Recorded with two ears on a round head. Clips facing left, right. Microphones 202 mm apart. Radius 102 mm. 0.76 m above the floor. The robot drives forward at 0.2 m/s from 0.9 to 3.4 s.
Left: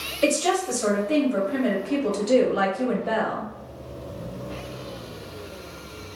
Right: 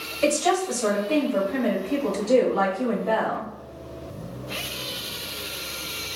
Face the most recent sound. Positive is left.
turn(degrees=25)  # may be behind; listen again after turning